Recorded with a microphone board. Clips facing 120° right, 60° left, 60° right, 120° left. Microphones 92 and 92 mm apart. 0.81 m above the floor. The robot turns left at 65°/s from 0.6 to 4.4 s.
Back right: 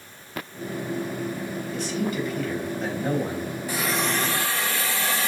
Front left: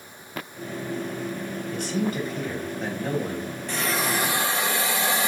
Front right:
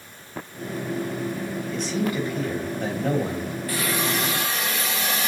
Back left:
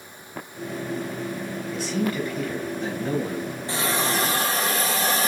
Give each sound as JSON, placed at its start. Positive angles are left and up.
{"t": 1.7, "sound": "a man speaking", "azimuth_deg": 40, "distance_m": 4.0}
{"t": 3.7, "sound": "a hiss", "azimuth_deg": 165, "distance_m": 1.2}